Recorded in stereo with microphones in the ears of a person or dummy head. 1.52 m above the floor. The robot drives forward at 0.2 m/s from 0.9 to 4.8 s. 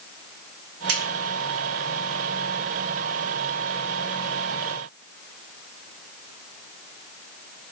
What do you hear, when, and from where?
0.9 s a finger snap: 75° right (ahead or behind), 2.5 m